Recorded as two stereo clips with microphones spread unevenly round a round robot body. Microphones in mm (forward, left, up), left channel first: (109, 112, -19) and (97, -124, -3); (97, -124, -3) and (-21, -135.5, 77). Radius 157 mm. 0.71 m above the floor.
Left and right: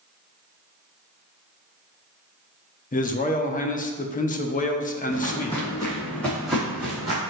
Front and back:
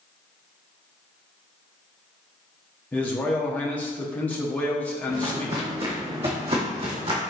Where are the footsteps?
150° left, 2 m; by 7.2 s 170° right, 2.5 m.